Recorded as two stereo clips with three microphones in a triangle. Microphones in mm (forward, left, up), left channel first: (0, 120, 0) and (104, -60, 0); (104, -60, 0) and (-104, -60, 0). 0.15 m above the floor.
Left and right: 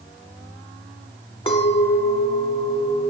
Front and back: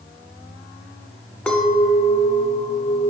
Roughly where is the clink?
Left.